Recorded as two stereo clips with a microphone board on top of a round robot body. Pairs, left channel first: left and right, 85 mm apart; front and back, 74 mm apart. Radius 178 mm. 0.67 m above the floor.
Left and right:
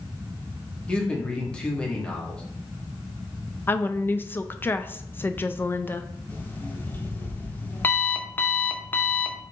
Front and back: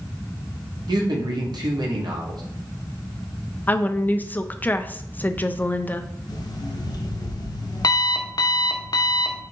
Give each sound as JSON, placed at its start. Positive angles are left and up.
{"t": 0.9, "sound": "a man speaking", "azimuth_deg": 170, "distance_m": 1.3}
{"t": 3.7, "sound": "a woman speaking", "azimuth_deg": 45, "distance_m": 0.6}
{"t": 6.3, "sound": "an alarm clock", "azimuth_deg": 25, "distance_m": 0.7}